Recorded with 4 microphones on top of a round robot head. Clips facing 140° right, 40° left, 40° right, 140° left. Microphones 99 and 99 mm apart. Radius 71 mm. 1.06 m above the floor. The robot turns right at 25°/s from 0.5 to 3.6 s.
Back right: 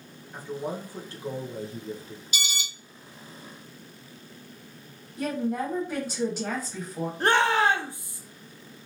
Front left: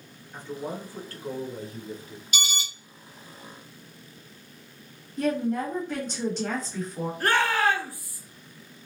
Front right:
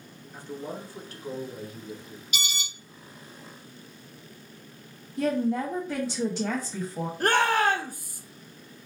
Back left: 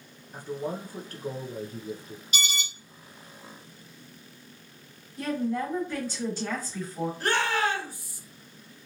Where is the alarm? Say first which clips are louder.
Front left 3 dB, back left 2 dB; 85° left, 0.8 m; by 2.6 s 90° left, 0.8 m.